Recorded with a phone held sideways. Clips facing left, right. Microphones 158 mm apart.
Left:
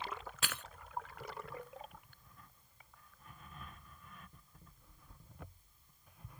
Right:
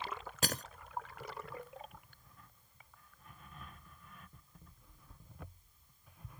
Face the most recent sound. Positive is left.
turn(degrees=-45)  # may be behind; listen again after turning